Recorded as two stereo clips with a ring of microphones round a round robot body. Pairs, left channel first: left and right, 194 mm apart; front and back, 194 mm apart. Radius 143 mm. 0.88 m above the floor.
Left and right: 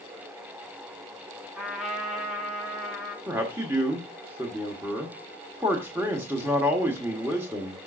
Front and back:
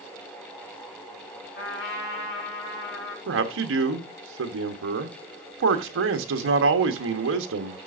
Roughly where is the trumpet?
Ahead.